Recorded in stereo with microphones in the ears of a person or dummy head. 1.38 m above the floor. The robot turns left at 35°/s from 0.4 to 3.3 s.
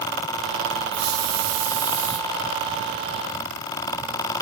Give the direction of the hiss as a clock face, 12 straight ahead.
3 o'clock.